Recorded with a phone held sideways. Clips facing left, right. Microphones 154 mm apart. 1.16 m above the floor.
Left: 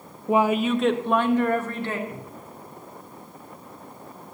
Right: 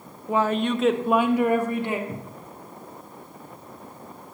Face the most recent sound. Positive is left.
turn(degrees=-30)  # may be behind; listen again after turning